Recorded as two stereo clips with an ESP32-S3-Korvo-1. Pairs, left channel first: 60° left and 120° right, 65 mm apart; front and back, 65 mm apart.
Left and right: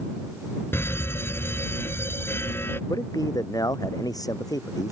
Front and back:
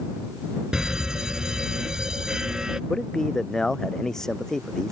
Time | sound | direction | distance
0.7 | a fire alarm | 105° left | ?
2.9 | a man speaking | 85° left | ?